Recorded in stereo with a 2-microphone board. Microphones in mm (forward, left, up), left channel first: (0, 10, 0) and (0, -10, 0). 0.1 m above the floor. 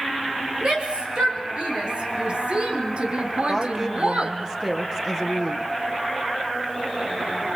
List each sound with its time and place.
0.6 s a shout: 50° right (ahead or behind), 6.5 m; by 4.4 s 60° right (ahead or behind), 3 m
3.5 s a woman speaking: 25° right (ahead or behind), 3 m